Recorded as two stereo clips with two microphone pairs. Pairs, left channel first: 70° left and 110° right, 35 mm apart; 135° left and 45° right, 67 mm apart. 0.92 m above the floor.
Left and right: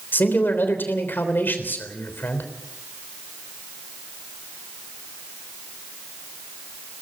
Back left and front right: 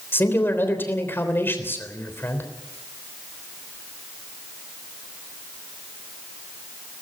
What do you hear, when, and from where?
0.1 s a man speaking: 80° left, 3.5 m